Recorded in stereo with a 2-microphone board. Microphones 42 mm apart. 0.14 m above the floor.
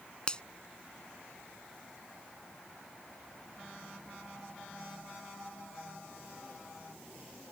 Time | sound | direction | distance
0.3 | a finger snap | 25° left (ahead or behind) | ?